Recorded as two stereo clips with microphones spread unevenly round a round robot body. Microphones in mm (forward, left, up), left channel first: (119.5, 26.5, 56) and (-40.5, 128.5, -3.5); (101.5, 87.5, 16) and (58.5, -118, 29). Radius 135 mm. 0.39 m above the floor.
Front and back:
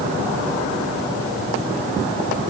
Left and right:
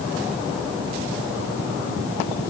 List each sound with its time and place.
Only background noise.